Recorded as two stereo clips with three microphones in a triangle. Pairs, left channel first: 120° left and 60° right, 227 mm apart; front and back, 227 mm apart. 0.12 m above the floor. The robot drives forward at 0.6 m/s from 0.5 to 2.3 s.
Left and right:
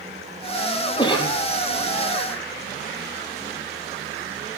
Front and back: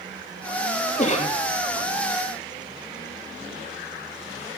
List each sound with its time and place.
1.0 s a cough: 55° left, 3.5 m